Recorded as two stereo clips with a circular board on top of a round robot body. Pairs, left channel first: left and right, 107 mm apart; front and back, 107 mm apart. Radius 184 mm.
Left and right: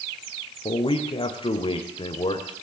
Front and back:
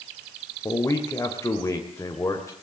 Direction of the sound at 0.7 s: 60° left.